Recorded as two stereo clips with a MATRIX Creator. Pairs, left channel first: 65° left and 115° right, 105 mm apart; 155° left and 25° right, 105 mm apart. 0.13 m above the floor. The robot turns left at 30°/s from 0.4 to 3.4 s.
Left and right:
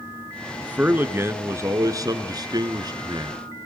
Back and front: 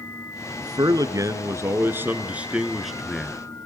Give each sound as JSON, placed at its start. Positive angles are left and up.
{"t": 0.6, "sound": "a man speaking", "azimuth_deg": -40, "distance_m": 1.6}